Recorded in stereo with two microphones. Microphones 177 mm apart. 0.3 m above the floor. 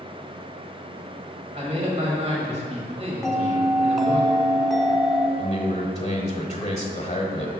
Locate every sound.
1.5 s a man speaking: 35° right (ahead or behind), 1.3 m
3.2 s a bell: centre (ahead or behind), 0.9 m
5.4 s a man speaking: 35° left (ahead or behind), 1.1 m